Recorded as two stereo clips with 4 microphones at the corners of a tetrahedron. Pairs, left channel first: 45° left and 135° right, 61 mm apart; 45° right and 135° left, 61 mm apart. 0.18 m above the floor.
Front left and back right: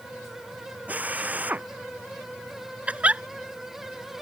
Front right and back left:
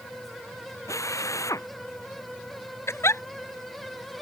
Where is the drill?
70° right.